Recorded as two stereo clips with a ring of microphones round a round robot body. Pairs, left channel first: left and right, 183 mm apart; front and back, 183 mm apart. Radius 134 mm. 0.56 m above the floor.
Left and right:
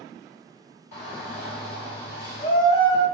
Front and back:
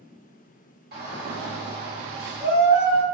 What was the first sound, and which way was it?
A shout, 170° left.